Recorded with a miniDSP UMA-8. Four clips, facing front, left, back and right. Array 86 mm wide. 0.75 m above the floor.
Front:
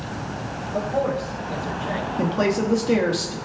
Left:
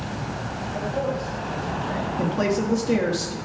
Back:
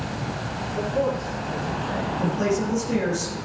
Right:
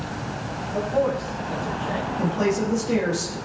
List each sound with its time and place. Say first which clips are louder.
0.7 s a man speaking: right 4 dB, front 1 dB; 15° right, 4 m
2.2 s a woman speaking: even, front 3 dB; 20° left, 1.4 m